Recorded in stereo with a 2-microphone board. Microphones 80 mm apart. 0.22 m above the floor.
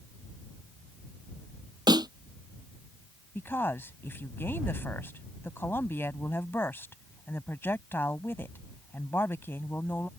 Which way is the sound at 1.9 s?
60° right (ahead or behind).